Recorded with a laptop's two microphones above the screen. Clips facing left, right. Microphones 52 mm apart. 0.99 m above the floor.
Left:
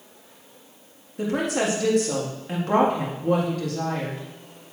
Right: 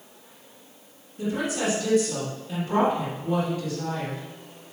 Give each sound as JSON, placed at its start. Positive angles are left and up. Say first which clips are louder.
{"t": 1.2, "sound": "a woman speaking", "louder": "left 3 dB", "side_deg": 70, "distance_m": 1.9}